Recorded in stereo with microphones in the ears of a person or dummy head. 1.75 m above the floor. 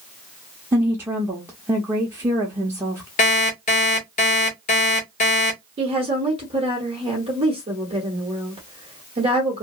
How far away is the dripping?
I don't hear dripping.